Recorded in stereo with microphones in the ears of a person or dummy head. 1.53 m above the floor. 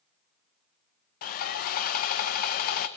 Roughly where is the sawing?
Left.